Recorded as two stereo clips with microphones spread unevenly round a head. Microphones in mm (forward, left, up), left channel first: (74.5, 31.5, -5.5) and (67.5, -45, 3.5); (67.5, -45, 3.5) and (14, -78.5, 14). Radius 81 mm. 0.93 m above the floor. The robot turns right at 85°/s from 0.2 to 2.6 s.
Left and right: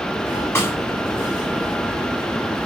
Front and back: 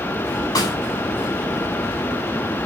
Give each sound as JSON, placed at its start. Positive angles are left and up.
{"t": 0.6, "sound": "a snare drum", "azimuth_deg": 25, "distance_m": 7.0}